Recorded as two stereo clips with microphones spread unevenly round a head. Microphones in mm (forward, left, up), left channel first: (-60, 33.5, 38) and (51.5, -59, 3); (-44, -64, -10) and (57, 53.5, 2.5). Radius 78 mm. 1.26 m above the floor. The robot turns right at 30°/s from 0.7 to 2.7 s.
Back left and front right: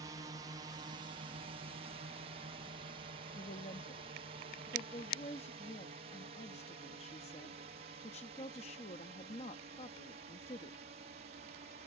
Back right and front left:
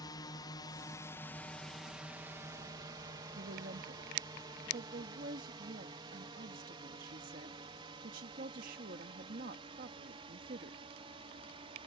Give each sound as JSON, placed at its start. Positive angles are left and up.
{"t": 0.0, "sound": "a drone", "azimuth_deg": -80}
{"t": 3.4, "sound": "a woman speaking", "azimuth_deg": 90}